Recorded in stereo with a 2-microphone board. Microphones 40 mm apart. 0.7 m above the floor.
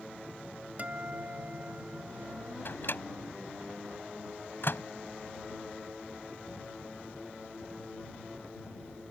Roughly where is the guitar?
Right.